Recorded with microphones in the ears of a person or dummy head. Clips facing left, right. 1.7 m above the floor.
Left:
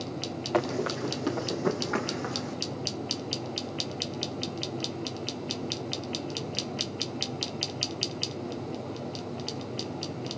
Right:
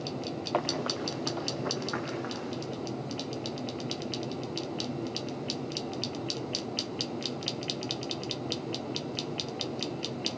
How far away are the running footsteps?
About 3.5 m.